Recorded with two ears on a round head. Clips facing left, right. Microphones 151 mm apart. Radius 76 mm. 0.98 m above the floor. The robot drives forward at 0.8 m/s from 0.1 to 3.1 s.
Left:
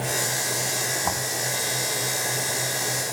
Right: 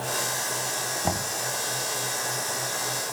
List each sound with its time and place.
1.0 s knocking: 30° right (ahead or behind)